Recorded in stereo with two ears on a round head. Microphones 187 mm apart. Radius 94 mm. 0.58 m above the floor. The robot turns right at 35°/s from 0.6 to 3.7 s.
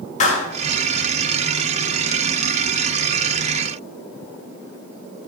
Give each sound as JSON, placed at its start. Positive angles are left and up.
{"t": 0.2, "sound": "a clap", "side_deg": 35, "distance_m": 2.5}